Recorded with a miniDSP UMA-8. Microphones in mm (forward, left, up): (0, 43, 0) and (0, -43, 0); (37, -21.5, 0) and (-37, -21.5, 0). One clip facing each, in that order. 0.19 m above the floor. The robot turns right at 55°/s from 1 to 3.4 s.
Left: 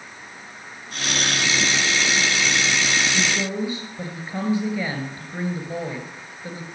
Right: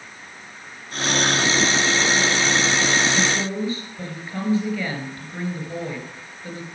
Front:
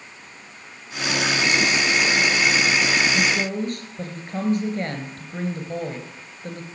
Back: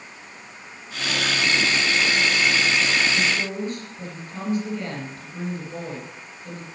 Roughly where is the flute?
No flute in this recording.